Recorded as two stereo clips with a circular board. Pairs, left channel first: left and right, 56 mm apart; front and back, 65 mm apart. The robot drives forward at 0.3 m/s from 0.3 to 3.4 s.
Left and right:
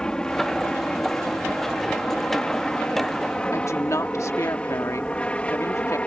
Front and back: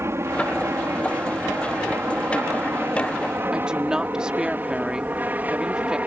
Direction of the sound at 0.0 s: 160° left.